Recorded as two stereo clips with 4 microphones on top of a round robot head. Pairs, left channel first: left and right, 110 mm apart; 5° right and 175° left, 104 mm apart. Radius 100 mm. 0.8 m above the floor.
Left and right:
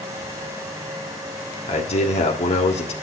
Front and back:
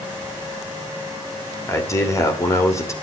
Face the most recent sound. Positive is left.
turn(degrees=60)